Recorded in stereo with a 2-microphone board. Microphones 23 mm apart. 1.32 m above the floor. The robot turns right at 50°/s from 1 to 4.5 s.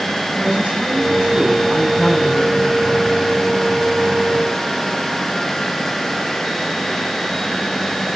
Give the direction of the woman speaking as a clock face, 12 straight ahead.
2 o'clock.